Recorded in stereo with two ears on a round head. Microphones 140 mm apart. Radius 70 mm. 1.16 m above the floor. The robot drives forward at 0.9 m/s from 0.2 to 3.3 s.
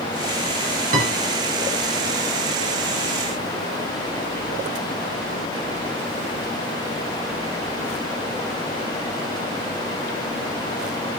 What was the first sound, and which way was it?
A piano, 50° right (ahead or behind).